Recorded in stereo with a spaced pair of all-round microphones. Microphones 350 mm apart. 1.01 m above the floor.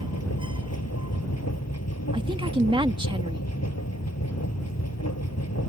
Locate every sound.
0.0 s a machine running: 45° left (ahead or behind)
2.1 s a woman speaking: 15° right (ahead or behind)